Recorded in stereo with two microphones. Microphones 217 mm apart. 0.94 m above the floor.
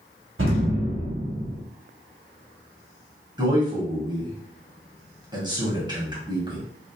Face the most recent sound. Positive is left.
turn(degrees=-20)  # may be behind; listen again after turning